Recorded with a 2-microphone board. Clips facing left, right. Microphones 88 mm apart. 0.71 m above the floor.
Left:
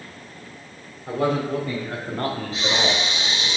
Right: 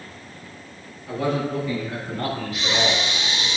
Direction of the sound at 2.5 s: 35° left (ahead or behind).